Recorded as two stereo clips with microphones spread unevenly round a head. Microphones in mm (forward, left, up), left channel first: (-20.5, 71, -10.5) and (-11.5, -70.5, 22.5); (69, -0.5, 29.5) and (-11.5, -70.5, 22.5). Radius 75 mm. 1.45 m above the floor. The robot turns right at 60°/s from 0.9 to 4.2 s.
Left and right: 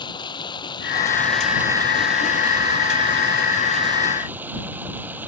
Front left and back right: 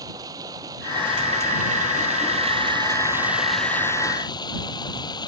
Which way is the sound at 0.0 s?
155° left.